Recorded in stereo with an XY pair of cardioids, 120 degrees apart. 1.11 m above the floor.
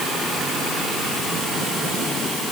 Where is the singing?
I don't hear singing.